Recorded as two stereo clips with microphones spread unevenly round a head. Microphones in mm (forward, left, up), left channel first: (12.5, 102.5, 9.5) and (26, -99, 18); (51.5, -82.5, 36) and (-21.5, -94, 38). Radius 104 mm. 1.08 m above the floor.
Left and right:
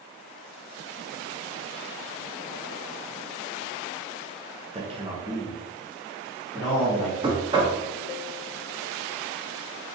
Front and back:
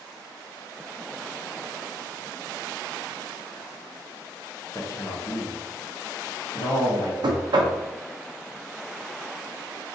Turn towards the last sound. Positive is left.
turn(degrees=-155)